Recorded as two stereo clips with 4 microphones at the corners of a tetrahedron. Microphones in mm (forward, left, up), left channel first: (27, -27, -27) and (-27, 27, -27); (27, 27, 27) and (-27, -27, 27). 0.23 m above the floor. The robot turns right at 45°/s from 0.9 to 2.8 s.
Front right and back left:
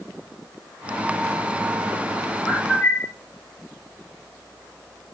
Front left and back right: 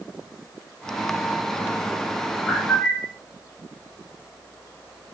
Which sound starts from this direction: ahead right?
A bird, at 2.5 s.